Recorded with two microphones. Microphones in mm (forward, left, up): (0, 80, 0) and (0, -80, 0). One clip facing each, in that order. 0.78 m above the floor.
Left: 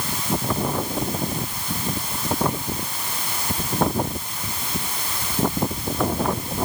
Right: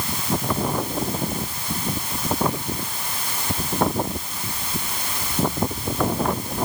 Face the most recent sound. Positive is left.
No sound to turn to.